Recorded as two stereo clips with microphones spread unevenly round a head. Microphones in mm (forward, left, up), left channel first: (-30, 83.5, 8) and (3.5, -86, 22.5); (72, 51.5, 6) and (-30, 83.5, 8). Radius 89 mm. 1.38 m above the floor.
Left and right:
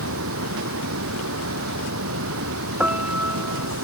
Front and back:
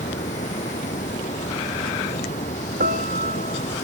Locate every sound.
0.0 s running water: 70° right
2.8 s a piano: 160° right